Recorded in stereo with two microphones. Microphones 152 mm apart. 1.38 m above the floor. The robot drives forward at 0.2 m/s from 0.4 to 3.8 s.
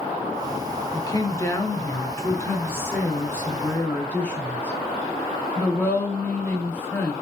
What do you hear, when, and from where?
0.9 s a woman speaking: 25° left (ahead or behind), 0.6 m; by 7.1 s 10° left (ahead or behind), 1.2 m